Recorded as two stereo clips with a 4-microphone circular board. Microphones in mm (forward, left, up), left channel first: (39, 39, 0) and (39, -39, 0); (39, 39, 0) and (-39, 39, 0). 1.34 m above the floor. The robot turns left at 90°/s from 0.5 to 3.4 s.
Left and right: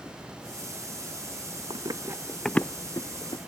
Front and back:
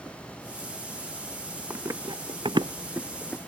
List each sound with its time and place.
1.7 s running footsteps: 110° right; by 3.4 s 75° left